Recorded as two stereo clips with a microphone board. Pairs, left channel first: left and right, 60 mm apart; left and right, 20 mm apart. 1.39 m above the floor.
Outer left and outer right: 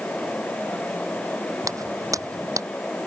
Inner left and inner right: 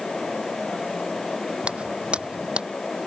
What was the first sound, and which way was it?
Footsteps, 70° right (ahead or behind).